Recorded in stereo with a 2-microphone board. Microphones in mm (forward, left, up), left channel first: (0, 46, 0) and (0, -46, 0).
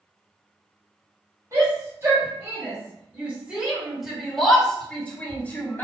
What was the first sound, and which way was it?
A shout, 35° right (ahead or behind).